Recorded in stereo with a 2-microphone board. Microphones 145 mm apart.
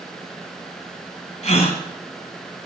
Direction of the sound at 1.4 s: 50° left (ahead or behind).